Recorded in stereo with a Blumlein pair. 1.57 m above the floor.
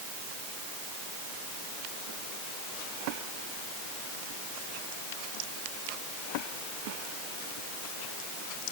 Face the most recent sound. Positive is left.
No sound to turn to.